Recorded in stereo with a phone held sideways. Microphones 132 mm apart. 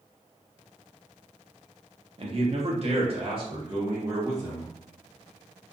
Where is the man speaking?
45° right (ahead or behind), 0.7 m; by 4.7 s 25° right (ahead or behind), 1.5 m.